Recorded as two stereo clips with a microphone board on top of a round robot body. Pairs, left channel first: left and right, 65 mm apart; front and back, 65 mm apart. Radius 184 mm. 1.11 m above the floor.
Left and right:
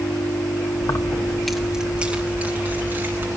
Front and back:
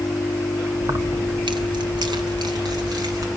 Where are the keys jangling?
125° left, 0.8 m; by 3.3 s 150° right, 3 m.